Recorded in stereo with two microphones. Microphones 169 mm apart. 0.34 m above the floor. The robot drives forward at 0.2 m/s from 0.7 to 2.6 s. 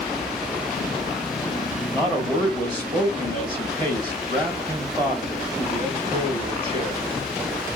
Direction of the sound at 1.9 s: 25° right (ahead or behind).